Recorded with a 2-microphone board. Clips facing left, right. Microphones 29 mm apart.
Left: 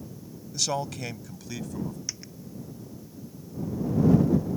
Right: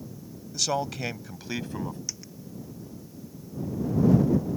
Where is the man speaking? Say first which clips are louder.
Right 1 dB; centre (ahead or behind); by 2.0 s 45° right (ahead or behind).